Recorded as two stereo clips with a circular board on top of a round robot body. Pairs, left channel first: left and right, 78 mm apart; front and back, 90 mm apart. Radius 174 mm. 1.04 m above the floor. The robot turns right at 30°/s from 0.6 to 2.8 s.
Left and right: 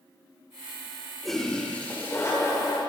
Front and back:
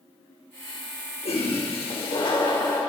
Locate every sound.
1.2 s a toilet flushing: straight ahead, 5 m; by 2.8 s 50° left, 5 m